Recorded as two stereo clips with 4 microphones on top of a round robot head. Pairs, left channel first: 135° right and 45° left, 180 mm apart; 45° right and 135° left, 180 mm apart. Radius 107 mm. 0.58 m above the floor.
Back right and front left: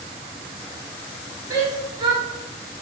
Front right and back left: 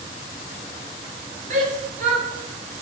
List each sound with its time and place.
1.5 s a shout: 105° left, 1.7 m